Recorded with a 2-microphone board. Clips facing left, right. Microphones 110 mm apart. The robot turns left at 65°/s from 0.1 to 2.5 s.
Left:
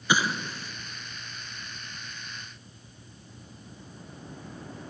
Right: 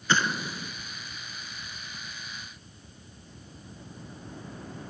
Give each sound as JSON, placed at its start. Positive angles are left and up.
{"t": 0.1, "sound": "an explosion", "side_deg": 10, "distance_m": 0.7}